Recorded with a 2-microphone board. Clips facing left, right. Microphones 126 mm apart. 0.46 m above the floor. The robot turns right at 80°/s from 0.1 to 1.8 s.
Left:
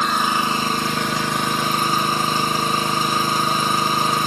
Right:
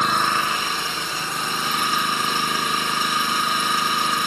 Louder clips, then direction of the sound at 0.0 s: Left 1 dB; straight ahead.